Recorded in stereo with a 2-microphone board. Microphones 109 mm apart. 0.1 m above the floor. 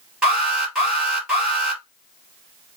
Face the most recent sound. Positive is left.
turn(degrees=-5)  # may be behind; listen again after turning